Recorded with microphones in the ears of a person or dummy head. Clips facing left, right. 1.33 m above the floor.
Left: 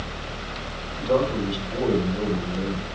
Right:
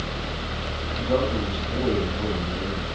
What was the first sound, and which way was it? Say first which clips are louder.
A man speaking: left 2 dB; 55° left (ahead or behind).